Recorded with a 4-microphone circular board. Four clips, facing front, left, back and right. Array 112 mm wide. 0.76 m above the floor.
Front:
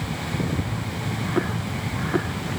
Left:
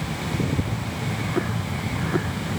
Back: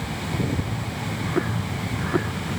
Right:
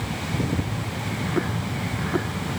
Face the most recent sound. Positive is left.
No sound to turn to.